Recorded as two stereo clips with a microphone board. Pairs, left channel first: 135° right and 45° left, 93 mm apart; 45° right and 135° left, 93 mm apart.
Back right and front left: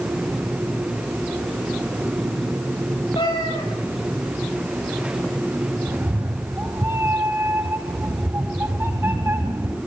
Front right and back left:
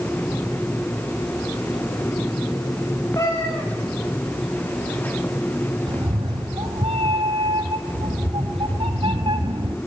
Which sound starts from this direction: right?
A cat meowing, at 3.1 s.